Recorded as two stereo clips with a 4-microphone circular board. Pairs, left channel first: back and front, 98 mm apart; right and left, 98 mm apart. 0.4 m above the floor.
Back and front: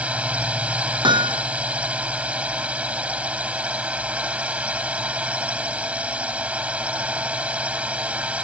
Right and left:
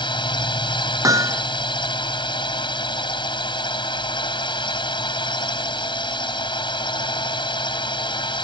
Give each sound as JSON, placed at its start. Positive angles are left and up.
{"t": 0.0, "sound": "a drone", "azimuth_deg": -75}
{"t": 1.0, "sound": "hammering", "azimuth_deg": 35}